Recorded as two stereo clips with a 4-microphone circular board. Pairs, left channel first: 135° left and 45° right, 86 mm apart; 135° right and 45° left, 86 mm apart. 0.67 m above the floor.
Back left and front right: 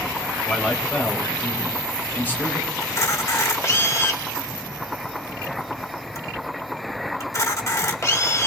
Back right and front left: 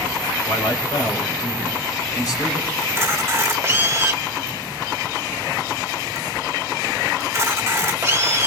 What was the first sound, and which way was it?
A man speaking, 145° right.